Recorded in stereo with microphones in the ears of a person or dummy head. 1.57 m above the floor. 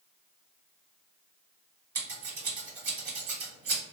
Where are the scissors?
35° right (ahead or behind), 1.9 m.